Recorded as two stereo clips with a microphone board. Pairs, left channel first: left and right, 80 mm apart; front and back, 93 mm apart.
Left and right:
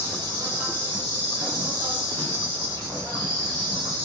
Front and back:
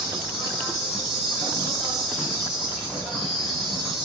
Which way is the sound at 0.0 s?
100° right.